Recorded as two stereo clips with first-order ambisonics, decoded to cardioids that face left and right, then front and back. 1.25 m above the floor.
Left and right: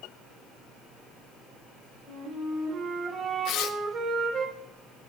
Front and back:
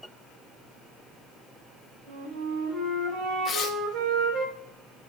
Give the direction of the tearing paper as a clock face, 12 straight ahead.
10 o'clock.